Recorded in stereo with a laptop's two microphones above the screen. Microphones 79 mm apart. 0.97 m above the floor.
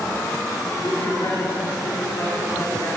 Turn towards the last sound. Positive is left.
turn(degrees=55)  # may be behind; listen again after turning